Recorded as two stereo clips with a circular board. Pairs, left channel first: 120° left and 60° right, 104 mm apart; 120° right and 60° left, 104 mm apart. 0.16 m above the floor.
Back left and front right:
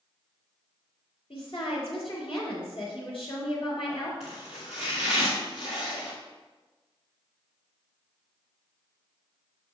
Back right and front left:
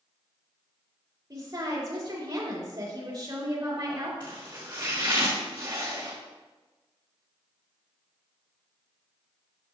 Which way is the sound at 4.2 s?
115° left.